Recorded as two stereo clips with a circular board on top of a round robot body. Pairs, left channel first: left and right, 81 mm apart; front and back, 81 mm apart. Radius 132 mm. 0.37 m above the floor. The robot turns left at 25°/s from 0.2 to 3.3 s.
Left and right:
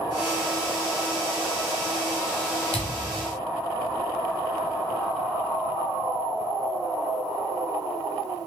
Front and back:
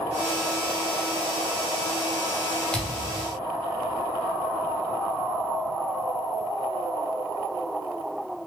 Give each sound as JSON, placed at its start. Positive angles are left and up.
{"t": 2.7, "sound": "a thud", "azimuth_deg": 80, "distance_m": 0.8}